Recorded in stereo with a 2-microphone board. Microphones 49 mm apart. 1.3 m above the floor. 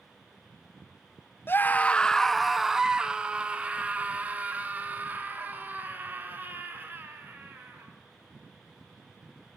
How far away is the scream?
About 0.9 m.